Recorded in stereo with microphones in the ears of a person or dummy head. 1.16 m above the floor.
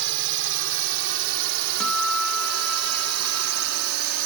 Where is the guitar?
Centre (ahead or behind).